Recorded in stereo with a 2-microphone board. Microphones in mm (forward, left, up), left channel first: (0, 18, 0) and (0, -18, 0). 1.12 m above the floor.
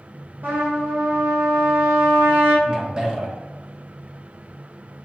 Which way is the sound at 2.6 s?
20° right (ahead or behind).